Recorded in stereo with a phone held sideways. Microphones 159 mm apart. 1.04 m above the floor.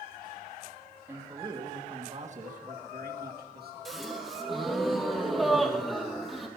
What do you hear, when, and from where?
1.1 s a man speaking: 15° right (ahead or behind), 1.8 m; by 3.8 s 75° right (ahead or behind), 2 m
3.9 s a gasp: centre (ahead or behind), 2 m